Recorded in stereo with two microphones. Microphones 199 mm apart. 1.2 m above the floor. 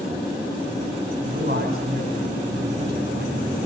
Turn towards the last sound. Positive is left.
turn(degrees=-55)  # may be behind; listen again after turning